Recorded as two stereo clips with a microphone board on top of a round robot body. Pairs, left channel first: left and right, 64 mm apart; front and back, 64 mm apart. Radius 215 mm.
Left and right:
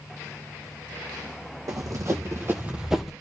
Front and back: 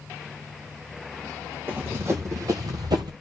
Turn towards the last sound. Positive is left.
turn(degrees=175)